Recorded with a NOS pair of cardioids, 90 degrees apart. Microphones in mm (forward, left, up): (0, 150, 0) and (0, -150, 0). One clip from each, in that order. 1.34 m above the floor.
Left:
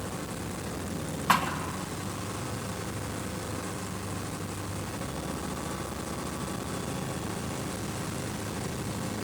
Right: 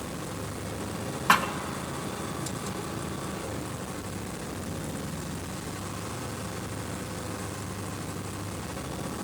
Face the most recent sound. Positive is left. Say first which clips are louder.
# right 2 dB
turn(degrees=-20)